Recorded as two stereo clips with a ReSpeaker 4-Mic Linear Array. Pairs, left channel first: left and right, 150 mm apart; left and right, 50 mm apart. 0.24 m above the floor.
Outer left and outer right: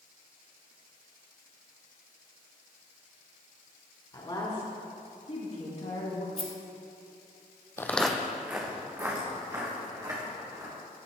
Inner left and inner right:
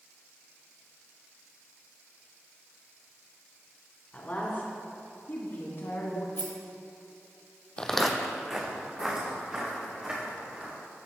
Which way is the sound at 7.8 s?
20° left (ahead or behind).